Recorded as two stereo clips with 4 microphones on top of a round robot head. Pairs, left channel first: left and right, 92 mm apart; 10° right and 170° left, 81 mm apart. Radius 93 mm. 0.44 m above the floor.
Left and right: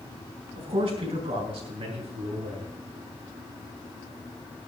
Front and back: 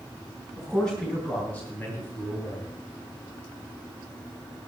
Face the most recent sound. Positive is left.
turn(degrees=-60)